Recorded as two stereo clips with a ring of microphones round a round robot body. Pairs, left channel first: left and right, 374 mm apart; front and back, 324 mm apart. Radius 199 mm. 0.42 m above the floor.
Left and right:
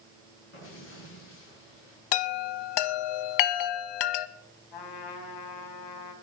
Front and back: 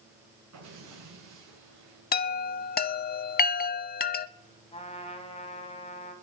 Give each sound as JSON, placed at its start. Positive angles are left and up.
{"t": 0.5, "sound": "an explosion", "azimuth_deg": 150, "distance_m": 7.5}
{"t": 2.1, "sound": "a chime", "azimuth_deg": 65, "distance_m": 0.6}
{"t": 4.7, "sound": "a trumpet", "azimuth_deg": 70, "distance_m": 2.5}